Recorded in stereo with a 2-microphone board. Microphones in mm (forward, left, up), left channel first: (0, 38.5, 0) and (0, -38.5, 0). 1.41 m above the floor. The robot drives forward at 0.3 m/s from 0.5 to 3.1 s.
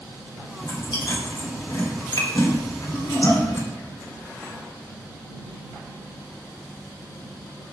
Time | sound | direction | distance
0.6 | chewing | 80° left | 3.5 m